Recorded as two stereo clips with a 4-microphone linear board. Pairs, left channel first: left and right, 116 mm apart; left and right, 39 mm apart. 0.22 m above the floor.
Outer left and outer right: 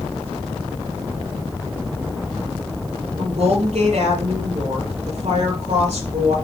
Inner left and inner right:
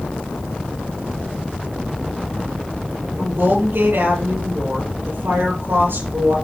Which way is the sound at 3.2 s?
70° right (ahead or behind).